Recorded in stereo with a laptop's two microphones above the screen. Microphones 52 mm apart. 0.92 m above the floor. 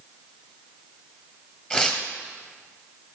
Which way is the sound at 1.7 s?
20° left (ahead or behind).